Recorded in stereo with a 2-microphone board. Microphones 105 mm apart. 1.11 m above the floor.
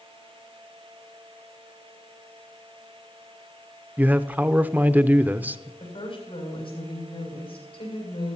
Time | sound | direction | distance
4.0 | a man speaking | 15° right (ahead or behind) | 0.5 m
5.8 | a woman speaking | 60° left (ahead or behind) | 6 m